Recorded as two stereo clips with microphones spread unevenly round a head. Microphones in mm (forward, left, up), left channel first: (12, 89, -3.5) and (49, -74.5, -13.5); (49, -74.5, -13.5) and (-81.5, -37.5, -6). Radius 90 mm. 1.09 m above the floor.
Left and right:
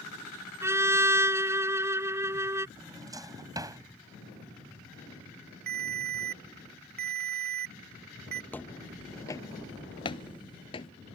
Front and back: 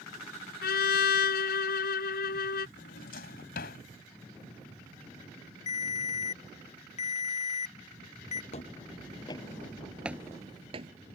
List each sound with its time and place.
0.6 s a trumpet: straight ahead
2.8 s a drawer: 5° right
5.7 s a ringtone: 50° right
8.5 s footsteps: 25° left; by 10.9 s 150° left